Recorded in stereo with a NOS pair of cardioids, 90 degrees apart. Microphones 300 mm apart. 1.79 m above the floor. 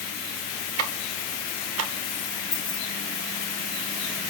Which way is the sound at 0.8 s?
55° right.